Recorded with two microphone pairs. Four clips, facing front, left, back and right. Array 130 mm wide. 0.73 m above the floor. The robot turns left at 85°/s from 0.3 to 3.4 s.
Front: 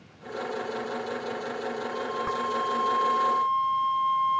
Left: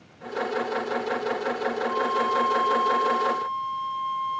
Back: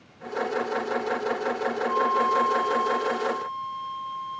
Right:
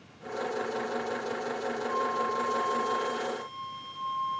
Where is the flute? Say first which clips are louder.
Left 5 dB, back 10 dB; 150° left, 2 m; by 4.4 s 20° left, 2 m.